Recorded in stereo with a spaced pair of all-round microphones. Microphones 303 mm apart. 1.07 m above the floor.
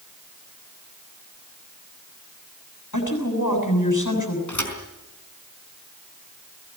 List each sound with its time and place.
2.9 s a woman speaking: 80° left, 7 m
4.5 s a thud: 80° left, 4.5 m